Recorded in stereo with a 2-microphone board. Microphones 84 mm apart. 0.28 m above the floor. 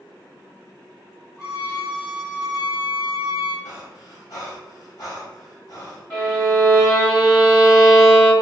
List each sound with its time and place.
1.4 s a violin: 35° left (ahead or behind), 1.9 m
3.6 s breathing: 50° left (ahead or behind), 1.2 m
6.1 s a violin: 15° left (ahead or behind), 1.8 m